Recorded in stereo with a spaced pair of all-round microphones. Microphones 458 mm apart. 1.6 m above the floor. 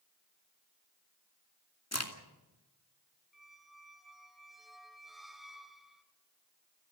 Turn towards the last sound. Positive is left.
turn(degrees=0)  # may be behind; listen again after turning